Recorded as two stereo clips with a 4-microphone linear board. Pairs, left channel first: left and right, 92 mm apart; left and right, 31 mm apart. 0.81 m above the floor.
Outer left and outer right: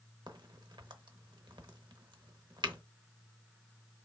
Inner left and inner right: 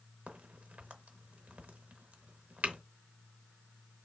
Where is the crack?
55° right (ahead or behind), 0.7 m.